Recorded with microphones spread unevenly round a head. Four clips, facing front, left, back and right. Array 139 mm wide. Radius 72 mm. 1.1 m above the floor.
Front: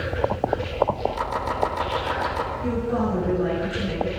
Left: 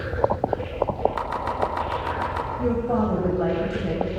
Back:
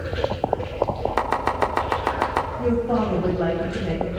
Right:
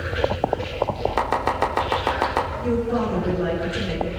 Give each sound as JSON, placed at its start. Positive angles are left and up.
{"t": 1.2, "sound": "chopping", "azimuth_deg": -140, "distance_m": 3.5}
{"t": 2.6, "sound": "a woman speaking", "azimuth_deg": 140, "distance_m": 7.5}